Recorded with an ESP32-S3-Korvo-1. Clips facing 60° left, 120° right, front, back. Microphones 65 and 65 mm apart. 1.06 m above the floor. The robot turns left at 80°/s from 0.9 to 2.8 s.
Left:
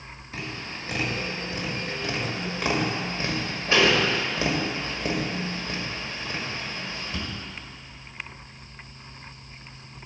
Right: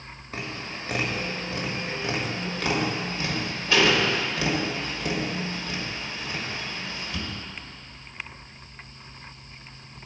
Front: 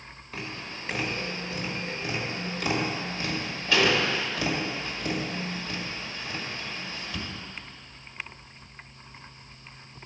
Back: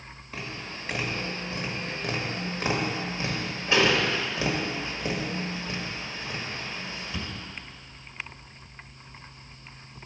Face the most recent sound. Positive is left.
turn(degrees=115)